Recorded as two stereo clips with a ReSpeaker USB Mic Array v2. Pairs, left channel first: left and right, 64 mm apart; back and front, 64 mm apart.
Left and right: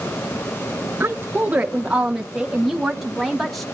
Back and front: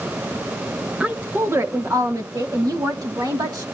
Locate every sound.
1.0 s a woman speaking: 65° right, 0.7 m; by 3.6 s 5° left, 1.9 m